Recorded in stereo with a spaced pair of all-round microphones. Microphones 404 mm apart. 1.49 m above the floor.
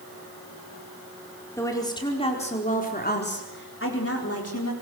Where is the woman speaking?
5° left (ahead or behind), 4.5 m; by 4.7 s 45° left (ahead or behind), 4.5 m.